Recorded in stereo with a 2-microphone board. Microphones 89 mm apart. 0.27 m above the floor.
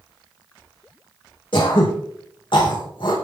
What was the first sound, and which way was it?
Throat clearing, 70° left (ahead or behind).